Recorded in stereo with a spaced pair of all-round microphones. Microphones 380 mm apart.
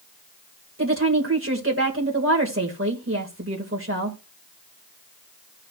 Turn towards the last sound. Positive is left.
turn(degrees=-35)  # may be behind; listen again after turning